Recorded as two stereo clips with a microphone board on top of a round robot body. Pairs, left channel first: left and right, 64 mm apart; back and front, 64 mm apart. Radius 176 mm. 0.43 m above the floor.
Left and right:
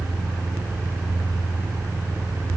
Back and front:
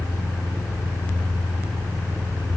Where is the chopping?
I don't hear chopping.